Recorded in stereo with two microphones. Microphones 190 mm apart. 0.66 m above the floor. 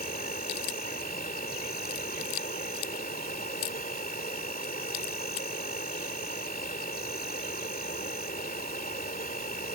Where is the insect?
50° left (ahead or behind).